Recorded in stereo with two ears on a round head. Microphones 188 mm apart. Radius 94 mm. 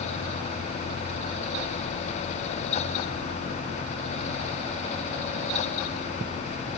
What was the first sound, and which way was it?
Only background noise.